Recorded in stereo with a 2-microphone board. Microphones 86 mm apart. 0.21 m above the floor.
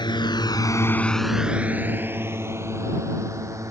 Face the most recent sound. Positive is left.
turn(degrees=-35)  # may be behind; listen again after turning